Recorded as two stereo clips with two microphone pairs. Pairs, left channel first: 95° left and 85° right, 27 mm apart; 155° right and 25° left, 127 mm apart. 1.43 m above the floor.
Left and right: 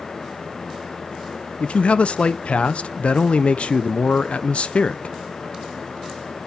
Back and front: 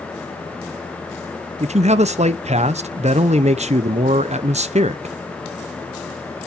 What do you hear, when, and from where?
1.6 s a man speaking: 55° left, 0.6 m